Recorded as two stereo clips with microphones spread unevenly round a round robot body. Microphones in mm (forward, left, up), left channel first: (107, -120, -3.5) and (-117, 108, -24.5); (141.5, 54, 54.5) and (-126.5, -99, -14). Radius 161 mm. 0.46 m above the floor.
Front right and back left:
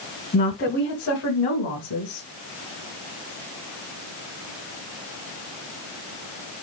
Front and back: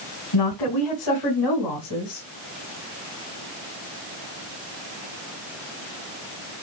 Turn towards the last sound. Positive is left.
turn(degrees=0)